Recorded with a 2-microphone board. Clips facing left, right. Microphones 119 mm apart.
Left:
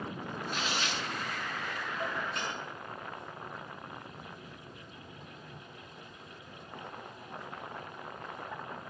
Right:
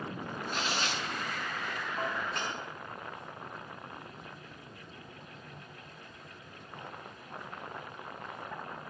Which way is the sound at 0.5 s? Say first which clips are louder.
Right 1 dB; 35° right (ahead or behind).